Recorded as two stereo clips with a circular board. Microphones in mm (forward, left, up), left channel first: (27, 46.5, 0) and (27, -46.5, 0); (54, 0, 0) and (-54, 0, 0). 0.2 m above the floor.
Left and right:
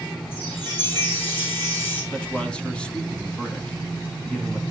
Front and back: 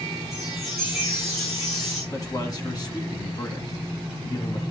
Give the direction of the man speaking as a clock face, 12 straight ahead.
11 o'clock.